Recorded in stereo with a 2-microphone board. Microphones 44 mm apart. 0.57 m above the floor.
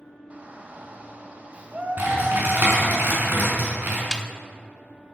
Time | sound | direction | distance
0.3 | a shout | 35° right (ahead or behind) | 3 m
2.0 | typing on a keyboard | 50° right (ahead or behind) | 6 m
4.1 | a snare drum | 15° left (ahead or behind) | 0.9 m